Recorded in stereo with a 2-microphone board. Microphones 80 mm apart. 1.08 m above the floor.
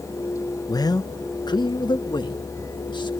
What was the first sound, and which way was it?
A man speaking, 50° left (ahead or behind).